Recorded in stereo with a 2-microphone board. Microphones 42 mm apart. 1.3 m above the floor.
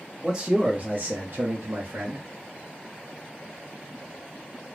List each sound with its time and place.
0.2 s a man speaking: 15° right (ahead or behind), 1.0 m; by 2.2 s 70° right (ahead or behind), 0.9 m